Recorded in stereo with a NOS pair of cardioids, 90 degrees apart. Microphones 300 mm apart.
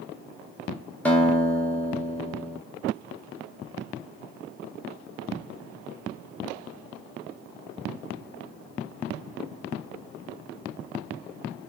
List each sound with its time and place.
1.1 s a guitar: 5° left, 0.7 m